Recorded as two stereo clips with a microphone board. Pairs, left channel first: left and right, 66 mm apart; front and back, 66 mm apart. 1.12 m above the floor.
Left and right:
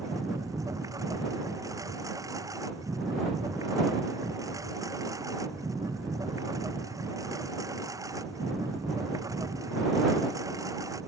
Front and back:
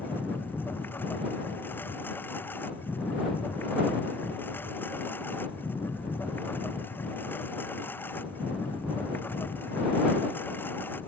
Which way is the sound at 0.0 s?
60° right.